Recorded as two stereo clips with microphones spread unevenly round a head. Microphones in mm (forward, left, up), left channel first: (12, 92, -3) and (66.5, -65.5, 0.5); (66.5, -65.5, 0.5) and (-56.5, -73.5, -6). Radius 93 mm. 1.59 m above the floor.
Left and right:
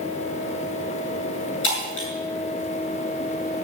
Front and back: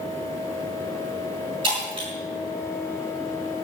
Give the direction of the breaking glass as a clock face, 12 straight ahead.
8 o'clock.